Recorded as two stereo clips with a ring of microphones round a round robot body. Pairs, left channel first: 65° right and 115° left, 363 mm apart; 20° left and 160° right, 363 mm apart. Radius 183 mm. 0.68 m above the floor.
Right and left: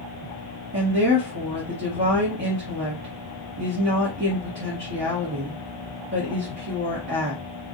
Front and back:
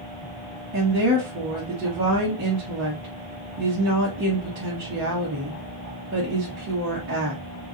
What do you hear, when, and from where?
0.7 s a woman speaking: 160° left, 1.3 m